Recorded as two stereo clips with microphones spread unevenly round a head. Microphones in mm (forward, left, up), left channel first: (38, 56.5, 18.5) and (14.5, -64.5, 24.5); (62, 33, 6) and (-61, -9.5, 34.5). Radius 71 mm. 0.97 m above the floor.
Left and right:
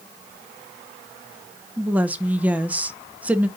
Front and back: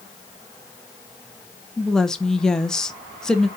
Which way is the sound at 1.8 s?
30° right.